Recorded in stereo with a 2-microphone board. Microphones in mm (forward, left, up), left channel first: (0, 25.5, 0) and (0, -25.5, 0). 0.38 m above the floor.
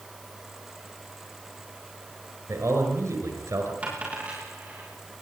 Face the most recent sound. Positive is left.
turn(degrees=-30)  # may be behind; listen again after turning